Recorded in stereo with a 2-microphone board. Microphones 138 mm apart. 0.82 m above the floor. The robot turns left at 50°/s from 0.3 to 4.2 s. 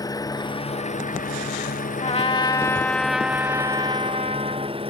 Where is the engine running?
155° left; by 4.9 s 40° right.